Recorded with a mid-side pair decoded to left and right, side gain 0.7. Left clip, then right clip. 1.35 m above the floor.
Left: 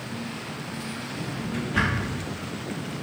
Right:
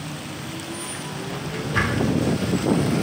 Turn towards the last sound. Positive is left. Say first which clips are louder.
# right 2 dB
turn(degrees=-30)